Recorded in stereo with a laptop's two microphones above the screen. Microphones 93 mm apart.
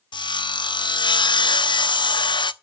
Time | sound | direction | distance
0.1 | sawing | 55° left (ahead or behind) | 0.5 m